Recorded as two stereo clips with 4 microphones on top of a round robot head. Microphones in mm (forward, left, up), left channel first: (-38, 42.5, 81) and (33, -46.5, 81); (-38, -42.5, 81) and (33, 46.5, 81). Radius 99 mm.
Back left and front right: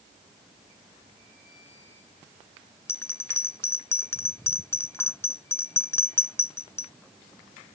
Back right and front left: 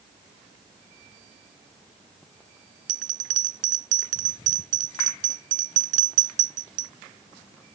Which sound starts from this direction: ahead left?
A bell, at 2.9 s.